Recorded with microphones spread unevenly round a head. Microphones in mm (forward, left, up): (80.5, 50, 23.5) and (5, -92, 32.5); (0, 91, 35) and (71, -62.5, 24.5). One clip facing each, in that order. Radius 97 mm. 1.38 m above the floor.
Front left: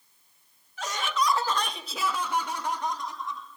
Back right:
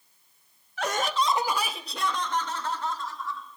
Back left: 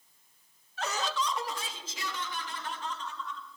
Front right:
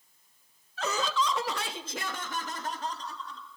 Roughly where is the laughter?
Right.